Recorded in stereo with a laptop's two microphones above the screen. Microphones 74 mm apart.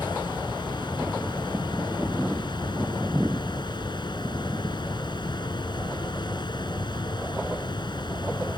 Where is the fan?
80° left.